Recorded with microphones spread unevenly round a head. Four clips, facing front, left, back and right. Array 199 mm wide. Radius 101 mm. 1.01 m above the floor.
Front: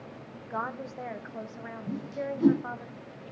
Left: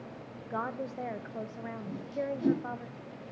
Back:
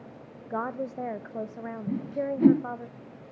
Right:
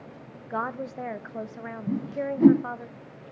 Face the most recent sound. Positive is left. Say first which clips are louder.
# right 7 dB, back 4 dB
turn(degrees=-110)